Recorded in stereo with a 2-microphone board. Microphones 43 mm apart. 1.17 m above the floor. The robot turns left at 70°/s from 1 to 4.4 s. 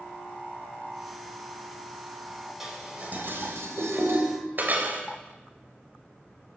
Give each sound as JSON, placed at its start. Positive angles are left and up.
{"t": 2.6, "sound": "dishes clattering", "side_deg": -5, "distance_m": 4.5}